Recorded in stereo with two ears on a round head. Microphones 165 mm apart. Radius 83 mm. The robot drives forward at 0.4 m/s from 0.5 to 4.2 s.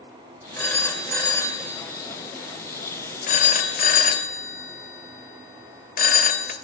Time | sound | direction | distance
0.6 | a phone ringing | 15° left (ahead or behind) | 1.5 m